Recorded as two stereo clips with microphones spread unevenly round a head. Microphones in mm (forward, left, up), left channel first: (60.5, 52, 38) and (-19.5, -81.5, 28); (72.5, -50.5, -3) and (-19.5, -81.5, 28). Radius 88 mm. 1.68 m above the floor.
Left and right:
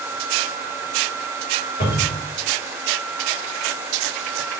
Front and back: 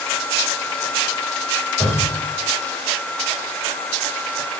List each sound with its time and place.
1.8 s a cupboard door: 100° left, 3 m